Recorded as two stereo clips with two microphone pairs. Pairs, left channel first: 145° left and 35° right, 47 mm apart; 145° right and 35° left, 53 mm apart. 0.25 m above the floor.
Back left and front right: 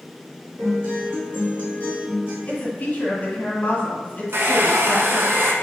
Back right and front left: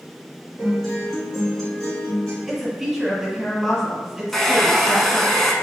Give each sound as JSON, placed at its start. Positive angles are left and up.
{"t": 0.6, "sound": "a guitar", "azimuth_deg": -60, "distance_m": 1.7}
{"t": 2.5, "sound": "a woman speaking", "azimuth_deg": 115, "distance_m": 1.5}
{"t": 4.3, "sound": "a hair dryer", "azimuth_deg": -65, "distance_m": 0.5}